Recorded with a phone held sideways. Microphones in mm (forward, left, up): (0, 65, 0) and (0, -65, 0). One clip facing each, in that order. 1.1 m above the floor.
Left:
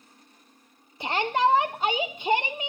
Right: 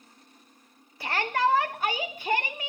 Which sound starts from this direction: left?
A shout, at 1.0 s.